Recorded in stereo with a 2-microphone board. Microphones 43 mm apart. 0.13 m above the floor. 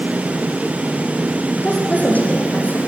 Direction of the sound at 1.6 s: 35° left (ahead or behind).